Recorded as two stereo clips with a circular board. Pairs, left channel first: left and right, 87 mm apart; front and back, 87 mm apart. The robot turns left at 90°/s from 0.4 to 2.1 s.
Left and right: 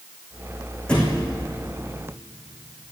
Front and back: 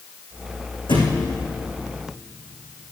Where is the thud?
10° left, 4 m; by 1.3 s 30° right, 4 m.